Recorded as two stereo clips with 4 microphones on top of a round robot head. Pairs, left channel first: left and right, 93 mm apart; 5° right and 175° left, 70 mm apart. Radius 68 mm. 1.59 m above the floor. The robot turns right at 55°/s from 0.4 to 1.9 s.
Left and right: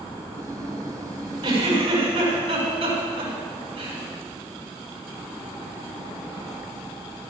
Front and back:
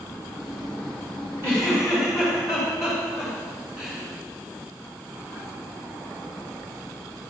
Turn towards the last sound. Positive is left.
turn(degrees=-105)